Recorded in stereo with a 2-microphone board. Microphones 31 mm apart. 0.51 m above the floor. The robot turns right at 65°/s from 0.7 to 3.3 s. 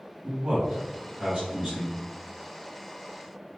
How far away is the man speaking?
About 1.3 m.